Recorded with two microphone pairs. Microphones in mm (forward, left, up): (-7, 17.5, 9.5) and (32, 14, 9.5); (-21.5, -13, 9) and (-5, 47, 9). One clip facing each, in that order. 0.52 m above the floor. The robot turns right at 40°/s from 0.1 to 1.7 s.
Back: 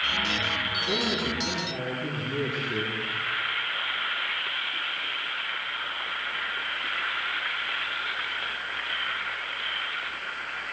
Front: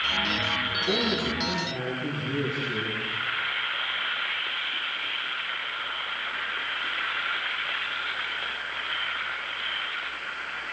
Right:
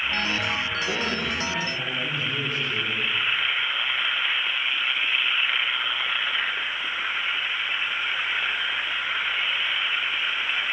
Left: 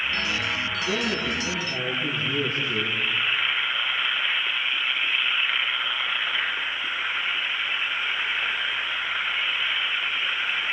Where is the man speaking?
10° right, 9.5 m; by 3.0 s 25° left, 9.5 m.